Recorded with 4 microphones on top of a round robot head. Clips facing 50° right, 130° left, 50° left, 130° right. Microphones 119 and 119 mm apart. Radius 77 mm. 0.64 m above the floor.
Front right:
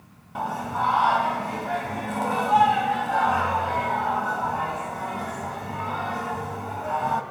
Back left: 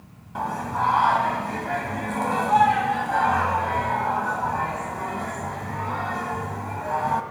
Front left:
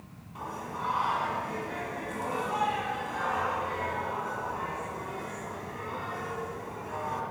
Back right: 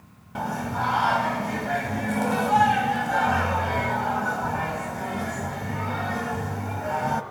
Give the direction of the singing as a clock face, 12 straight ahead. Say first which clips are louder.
Back left 1 dB, back right 9 dB; 4 o'clock.